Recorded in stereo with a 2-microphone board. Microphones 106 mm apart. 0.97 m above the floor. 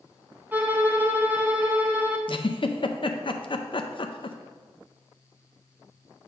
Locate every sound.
0.5 s a violin: 15° right (ahead or behind), 1.0 m
2.3 s a giggle: 50° left (ahead or behind), 0.6 m